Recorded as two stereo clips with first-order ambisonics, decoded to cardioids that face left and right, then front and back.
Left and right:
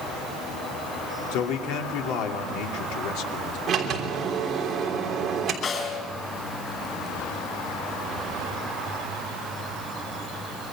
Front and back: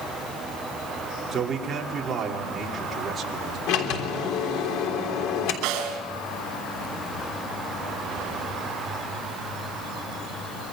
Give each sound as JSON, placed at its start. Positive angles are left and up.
{"t": 1.3, "sound": "a man speaking", "azimuth_deg": 110, "distance_m": 2.5}
{"t": 3.7, "sound": "a sliding door", "azimuth_deg": -25, "distance_m": 3.0}
{"t": 5.6, "sound": "a snare drum", "azimuth_deg": 155, "distance_m": 4.0}